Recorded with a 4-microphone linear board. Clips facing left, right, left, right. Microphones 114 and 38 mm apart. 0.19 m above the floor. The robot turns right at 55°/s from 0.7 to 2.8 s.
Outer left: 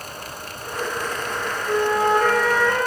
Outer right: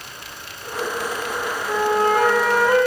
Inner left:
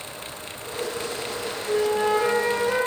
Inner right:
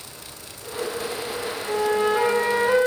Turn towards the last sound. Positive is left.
turn(degrees=-20)